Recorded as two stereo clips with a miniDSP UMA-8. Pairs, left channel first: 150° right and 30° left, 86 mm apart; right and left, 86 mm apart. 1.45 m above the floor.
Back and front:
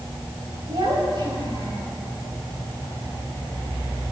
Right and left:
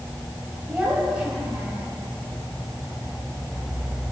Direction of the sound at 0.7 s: 15° left.